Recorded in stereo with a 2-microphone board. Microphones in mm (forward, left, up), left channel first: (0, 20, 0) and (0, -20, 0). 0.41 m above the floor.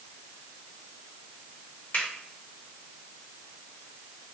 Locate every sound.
1.9 s a finger snap: 55° left (ahead or behind), 1.9 m